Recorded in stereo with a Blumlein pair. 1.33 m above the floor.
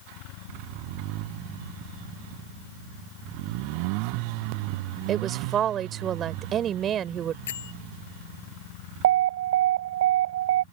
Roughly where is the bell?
Ahead left.